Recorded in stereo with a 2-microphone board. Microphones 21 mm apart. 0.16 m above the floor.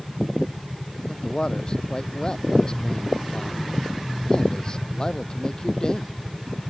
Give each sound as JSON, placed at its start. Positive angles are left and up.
{"t": 1.1, "sound": "a man speaking", "side_deg": 35}